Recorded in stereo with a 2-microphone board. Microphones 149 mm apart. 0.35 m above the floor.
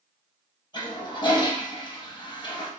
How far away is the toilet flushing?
About 0.5 m.